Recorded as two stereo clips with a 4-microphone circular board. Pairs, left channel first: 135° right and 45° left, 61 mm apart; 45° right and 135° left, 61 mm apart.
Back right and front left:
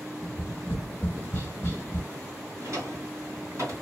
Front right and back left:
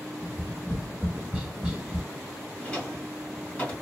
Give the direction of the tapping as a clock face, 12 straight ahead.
5 o'clock.